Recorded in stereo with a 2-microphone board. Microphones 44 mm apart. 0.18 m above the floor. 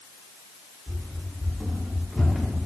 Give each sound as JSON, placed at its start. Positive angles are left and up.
{"t": 0.9, "sound": "running footsteps", "side_deg": -10, "distance_m": 7.0}